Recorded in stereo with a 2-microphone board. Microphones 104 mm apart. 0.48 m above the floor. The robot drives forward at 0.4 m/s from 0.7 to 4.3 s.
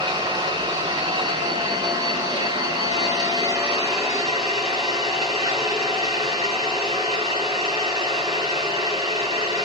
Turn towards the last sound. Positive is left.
turn(degrees=-35)  # may be behind; listen again after turning